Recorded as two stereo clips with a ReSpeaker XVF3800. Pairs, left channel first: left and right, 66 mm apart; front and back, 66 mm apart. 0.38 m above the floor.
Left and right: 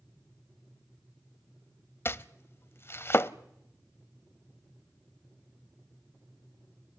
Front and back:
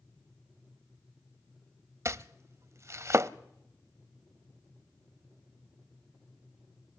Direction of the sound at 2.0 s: 140° left.